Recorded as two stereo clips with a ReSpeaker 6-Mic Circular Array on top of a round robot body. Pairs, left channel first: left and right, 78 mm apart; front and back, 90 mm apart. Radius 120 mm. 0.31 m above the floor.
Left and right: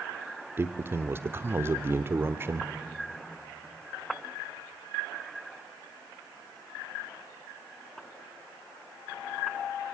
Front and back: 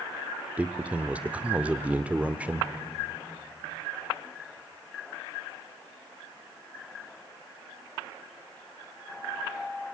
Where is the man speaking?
115° right, 0.9 m.